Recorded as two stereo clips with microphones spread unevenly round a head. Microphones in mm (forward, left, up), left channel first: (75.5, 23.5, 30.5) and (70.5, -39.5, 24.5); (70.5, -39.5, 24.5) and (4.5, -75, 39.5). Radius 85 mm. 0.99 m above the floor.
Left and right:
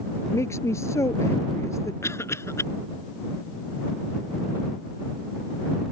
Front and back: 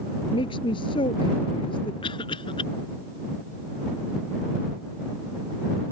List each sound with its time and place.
0.3 s a woman speaking: 45° left; by 1.9 s 50° left
2.0 s a cough: 40° left